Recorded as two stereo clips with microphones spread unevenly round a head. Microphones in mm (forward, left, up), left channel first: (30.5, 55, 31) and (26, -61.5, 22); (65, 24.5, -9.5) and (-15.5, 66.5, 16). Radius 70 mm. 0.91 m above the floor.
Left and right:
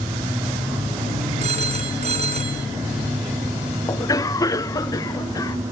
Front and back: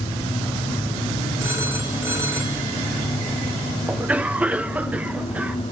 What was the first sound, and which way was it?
A phone ringing, 135° right.